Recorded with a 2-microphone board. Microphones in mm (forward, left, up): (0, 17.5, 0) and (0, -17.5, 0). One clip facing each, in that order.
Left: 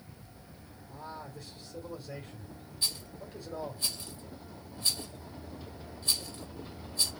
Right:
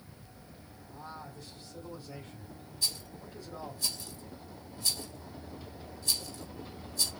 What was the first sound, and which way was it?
A man speaking, 55° left (ahead or behind).